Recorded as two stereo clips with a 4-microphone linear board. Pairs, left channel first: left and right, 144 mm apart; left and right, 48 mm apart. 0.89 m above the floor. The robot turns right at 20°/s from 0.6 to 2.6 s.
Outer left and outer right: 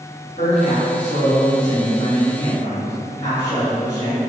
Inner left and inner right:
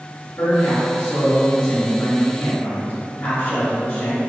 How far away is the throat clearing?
No throat clearing in this recording.